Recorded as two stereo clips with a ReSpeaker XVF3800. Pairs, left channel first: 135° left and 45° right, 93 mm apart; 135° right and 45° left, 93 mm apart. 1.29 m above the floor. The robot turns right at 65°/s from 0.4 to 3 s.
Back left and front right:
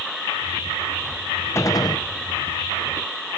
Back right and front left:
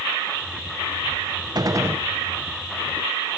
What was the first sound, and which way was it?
A gunshot, 80° left.